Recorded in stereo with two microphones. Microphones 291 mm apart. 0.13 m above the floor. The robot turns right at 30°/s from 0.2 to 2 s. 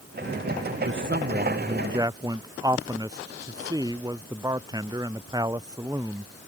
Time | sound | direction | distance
0.8 | a man speaking | 50° right | ?